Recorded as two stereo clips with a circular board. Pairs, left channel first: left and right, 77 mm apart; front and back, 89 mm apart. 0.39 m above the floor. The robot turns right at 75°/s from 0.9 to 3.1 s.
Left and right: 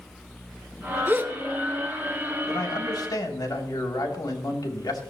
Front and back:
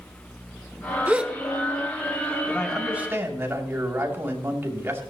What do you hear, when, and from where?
1.1 s a gasp: 125° right, 0.9 m; by 1.4 s 105° right, 0.9 m
2.5 s a man speaking: 70° left, 2.5 m; by 5.0 s 115° left, 2.5 m